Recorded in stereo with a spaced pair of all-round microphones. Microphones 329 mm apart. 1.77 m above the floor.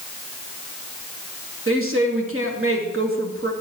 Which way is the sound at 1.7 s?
40° right (ahead or behind).